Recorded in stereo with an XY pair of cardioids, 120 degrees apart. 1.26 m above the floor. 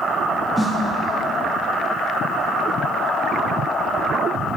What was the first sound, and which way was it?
A snare drum, 5° right.